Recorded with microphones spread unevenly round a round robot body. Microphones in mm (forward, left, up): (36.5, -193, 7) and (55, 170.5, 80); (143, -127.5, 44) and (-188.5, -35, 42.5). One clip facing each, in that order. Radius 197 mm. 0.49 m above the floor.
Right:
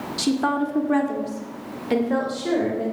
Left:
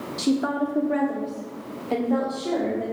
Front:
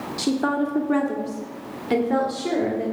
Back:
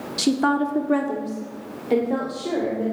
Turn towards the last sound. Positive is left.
turn(degrees=-60)